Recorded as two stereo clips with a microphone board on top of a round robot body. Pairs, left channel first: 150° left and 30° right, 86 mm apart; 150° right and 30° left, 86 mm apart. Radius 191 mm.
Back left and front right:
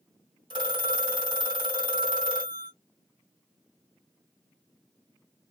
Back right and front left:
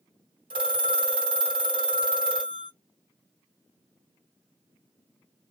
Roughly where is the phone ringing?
Ahead.